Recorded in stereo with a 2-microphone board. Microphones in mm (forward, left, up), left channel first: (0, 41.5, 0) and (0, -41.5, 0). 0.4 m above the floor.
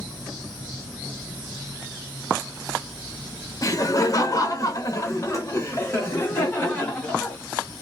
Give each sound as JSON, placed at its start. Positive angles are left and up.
{"t": 3.6, "sound": "laughter", "side_deg": 45, "distance_m": 1.1}